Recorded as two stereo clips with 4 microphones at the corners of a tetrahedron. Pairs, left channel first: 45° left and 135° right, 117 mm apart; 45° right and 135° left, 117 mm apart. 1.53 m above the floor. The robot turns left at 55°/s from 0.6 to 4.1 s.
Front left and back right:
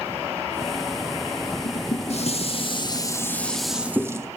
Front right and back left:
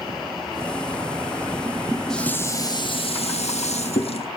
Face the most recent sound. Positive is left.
turn(degrees=-70)